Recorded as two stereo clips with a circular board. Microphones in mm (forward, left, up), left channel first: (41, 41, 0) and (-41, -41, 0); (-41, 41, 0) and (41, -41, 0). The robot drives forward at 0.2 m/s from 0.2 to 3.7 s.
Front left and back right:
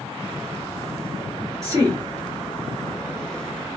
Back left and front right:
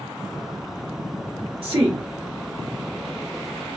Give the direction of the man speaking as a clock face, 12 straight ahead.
3 o'clock.